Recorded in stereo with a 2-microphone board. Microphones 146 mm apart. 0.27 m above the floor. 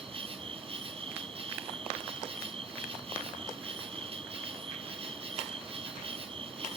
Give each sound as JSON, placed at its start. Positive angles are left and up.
{"t": 0.0, "sound": "an insect", "side_deg": -40, "distance_m": 1.3}